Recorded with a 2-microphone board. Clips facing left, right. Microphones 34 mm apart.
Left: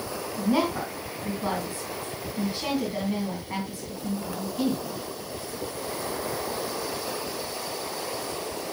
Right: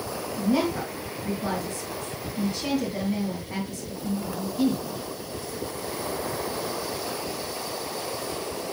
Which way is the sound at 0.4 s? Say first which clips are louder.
Even; 25° left (ahead or behind).